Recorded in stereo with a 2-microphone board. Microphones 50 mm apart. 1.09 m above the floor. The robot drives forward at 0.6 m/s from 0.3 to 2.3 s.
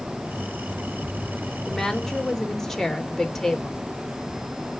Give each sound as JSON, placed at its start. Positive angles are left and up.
{"t": 1.7, "sound": "a woman speaking", "side_deg": 5, "distance_m": 3.5}